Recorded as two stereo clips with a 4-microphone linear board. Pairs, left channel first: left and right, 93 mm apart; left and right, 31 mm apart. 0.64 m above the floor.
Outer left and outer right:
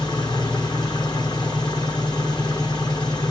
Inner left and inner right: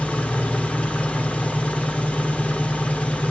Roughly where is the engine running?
Left.